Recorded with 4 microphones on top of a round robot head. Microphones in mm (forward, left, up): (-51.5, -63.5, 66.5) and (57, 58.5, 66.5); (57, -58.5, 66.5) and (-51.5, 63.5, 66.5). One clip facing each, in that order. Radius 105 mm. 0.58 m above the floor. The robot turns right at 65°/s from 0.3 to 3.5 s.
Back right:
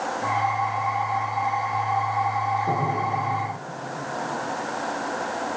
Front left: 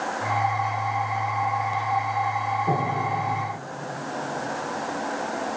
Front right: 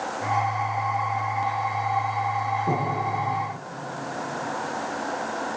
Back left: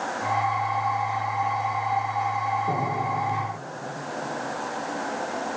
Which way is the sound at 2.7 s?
40° right.